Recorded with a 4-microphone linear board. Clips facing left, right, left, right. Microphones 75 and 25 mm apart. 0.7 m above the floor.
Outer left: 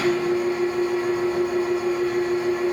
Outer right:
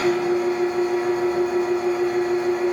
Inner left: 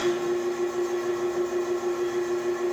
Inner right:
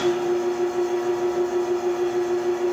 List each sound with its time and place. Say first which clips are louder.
0.0 s an engine running: outer right 1 dB, inner right 4 dB; 60° right (ahead or behind), 1.2 m